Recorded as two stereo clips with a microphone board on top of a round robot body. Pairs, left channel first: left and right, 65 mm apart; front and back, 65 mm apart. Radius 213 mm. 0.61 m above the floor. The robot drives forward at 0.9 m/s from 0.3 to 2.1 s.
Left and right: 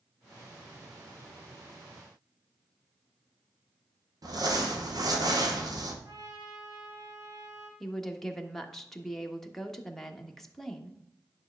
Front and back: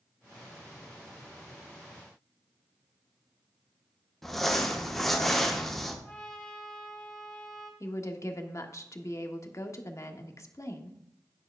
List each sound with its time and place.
4.2 s crumpling: 85° right, 1.5 m
6.0 s a trumpet: 75° right, 3.5 m
7.8 s a woman speaking: 5° left, 1.4 m